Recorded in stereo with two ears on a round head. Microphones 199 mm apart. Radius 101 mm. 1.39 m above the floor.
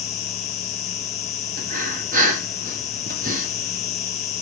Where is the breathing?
35° right (ahead or behind), 1.1 m.